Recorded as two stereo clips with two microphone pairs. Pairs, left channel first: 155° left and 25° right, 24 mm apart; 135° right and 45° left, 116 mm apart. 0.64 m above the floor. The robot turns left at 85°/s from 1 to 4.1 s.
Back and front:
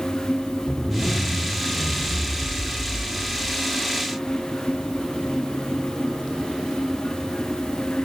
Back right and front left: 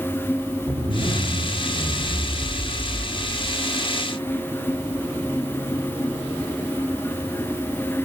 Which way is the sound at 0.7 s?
80° left.